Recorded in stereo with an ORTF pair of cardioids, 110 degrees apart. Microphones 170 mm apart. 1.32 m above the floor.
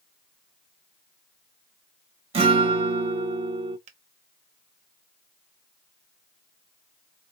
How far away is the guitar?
About 1.5 m.